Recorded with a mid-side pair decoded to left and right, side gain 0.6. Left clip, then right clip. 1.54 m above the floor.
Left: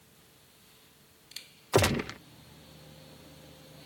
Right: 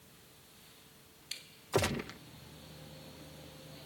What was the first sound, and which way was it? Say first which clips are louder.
A gunshot: left 7 dB; 40° left.